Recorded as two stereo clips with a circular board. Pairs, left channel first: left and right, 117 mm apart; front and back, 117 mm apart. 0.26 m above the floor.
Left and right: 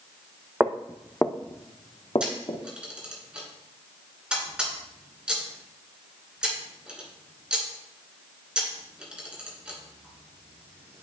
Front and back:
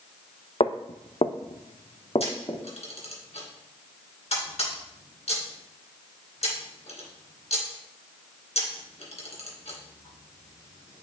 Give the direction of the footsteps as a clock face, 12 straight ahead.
1 o'clock.